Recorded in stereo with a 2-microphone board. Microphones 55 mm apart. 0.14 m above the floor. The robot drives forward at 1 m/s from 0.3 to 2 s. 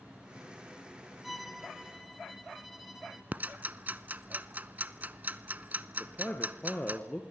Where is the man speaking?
25° left (ahead or behind), 2 m.